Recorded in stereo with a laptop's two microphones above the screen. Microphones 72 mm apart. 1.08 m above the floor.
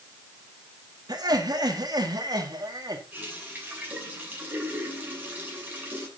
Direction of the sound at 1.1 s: 65° right (ahead or behind).